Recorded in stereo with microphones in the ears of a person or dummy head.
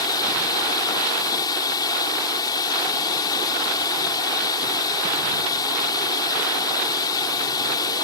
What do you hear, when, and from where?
0.0 s running water: 20° left (ahead or behind)